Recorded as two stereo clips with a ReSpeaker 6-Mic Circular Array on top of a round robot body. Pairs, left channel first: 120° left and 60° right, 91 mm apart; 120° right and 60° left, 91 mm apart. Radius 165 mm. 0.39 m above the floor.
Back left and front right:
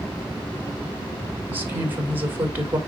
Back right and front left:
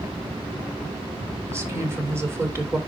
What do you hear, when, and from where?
1.5 s a woman speaking: 5° left, 2.5 m